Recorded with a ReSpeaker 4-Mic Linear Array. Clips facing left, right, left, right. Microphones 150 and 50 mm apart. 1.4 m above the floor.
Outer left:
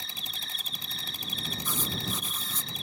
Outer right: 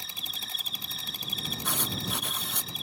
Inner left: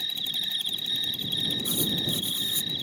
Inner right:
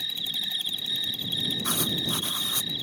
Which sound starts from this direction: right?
Writing, at 1.6 s.